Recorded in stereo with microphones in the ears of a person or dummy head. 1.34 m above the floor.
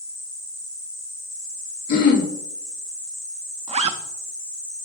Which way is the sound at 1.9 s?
50° left (ahead or behind).